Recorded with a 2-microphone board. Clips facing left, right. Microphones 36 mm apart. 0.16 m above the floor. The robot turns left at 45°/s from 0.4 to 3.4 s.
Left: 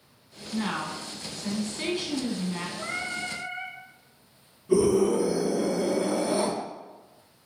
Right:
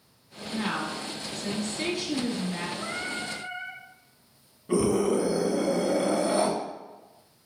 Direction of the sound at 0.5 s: 10° right (ahead or behind).